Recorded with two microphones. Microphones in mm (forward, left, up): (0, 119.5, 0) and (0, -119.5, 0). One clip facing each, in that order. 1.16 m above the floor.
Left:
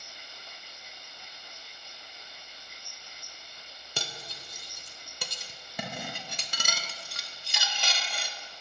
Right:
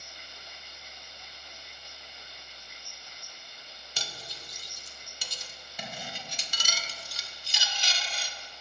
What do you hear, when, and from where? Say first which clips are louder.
4.0 s cutlery clinking: left 4 dB; 60° left (ahead or behind), 0.6 m